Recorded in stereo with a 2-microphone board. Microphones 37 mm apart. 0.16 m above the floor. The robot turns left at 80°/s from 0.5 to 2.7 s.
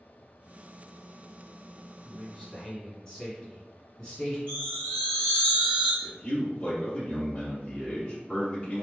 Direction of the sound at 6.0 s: 25° left (ahead or behind).